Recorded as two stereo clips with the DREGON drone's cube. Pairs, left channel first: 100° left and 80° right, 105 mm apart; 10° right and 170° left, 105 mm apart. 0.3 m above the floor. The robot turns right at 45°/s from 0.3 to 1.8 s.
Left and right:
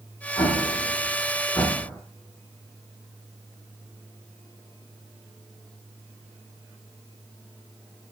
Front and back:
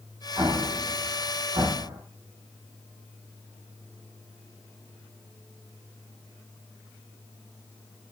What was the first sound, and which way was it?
An explosion, 105° left.